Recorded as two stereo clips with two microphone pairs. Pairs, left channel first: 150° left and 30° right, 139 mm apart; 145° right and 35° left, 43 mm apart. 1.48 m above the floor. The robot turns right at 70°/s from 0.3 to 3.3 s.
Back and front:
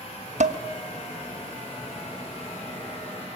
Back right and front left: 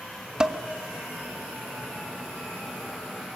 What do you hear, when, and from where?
0.4 s dishes clattering: 35° right, 1.1 m; by 0.6 s 20° right, 1.1 m